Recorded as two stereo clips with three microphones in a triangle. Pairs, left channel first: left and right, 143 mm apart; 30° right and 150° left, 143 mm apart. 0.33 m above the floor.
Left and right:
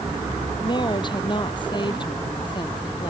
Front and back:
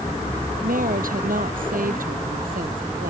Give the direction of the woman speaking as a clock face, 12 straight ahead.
7 o'clock.